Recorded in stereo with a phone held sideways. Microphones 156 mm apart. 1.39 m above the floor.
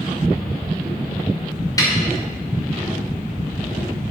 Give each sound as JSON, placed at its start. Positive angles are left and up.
{"t": 1.8, "sound": "a snare drum", "side_deg": 20, "distance_m": 2.5}